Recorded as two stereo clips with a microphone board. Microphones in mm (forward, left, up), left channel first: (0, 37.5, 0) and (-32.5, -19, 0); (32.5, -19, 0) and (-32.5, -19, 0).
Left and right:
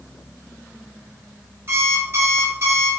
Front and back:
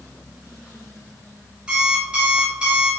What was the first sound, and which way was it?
An alarm clock, 110° right.